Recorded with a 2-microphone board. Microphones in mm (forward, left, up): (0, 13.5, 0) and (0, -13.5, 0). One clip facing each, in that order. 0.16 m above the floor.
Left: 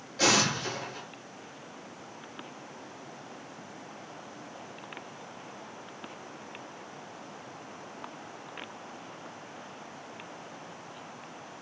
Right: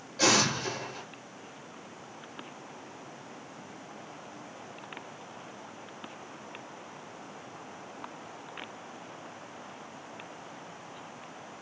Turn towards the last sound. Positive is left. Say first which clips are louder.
# even
turn(degrees=10)  # may be behind; listen again after turning